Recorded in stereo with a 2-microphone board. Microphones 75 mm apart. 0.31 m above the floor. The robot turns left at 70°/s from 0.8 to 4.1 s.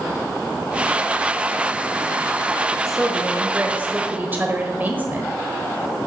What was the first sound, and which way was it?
A woman speaking, centre (ahead or behind).